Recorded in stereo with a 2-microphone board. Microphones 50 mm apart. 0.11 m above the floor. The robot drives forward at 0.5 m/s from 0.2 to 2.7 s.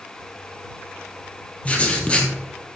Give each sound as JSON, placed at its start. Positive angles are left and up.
{"t": 1.6, "sound": "writing", "side_deg": 25, "distance_m": 2.0}